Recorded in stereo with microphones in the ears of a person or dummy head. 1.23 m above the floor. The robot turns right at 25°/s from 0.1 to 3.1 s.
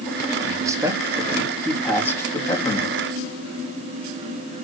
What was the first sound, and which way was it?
A man speaking, 30° right.